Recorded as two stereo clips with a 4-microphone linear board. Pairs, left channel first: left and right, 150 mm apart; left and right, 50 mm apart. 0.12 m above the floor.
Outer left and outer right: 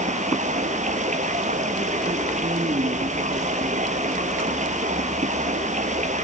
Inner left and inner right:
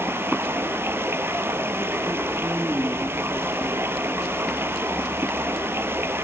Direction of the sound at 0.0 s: 50° right (ahead or behind).